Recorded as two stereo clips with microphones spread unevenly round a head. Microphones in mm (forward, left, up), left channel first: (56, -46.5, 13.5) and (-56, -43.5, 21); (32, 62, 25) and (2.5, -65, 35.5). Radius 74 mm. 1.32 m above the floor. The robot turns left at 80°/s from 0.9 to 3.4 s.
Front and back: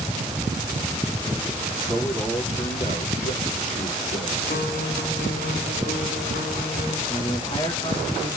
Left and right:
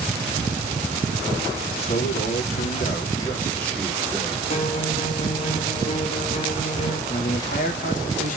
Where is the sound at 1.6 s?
140° left, 3.5 m; by 4.4 s straight ahead, 3.5 m.